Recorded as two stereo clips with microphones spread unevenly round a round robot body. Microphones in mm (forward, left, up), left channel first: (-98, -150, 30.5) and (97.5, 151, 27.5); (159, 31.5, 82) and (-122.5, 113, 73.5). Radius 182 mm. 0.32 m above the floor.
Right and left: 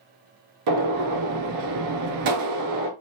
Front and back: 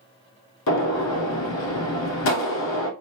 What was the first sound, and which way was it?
A gunshot, 20° left.